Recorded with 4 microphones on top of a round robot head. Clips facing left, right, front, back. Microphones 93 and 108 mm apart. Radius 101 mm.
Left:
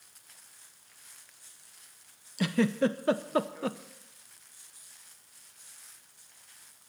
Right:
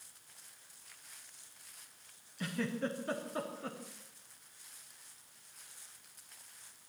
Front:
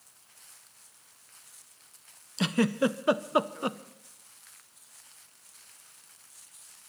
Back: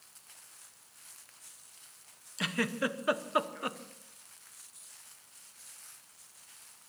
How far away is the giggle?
About 0.6 m.